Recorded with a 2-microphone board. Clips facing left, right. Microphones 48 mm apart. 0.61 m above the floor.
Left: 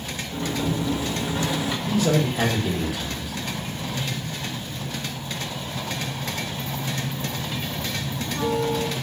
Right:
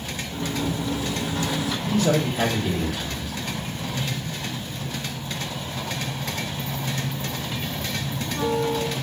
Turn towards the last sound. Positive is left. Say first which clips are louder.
# even
turn(degrees=10)  # may be behind; listen again after turning